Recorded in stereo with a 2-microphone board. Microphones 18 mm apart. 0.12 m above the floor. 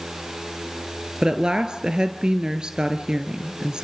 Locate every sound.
1.2 s a woman speaking: 50° right (ahead or behind), 1.7 m